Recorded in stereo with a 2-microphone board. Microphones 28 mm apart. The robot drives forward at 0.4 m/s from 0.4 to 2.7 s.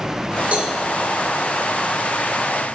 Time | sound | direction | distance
0.5 | a cowbell | 50° right (ahead or behind) | 4 m